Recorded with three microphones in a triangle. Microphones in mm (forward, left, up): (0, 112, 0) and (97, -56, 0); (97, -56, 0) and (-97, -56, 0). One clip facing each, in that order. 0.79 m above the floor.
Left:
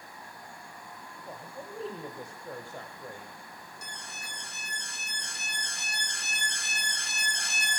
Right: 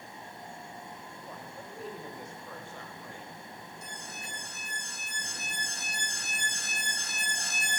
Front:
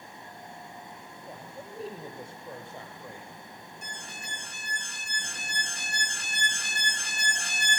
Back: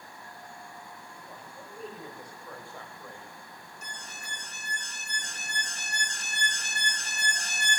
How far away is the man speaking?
About 3.5 m.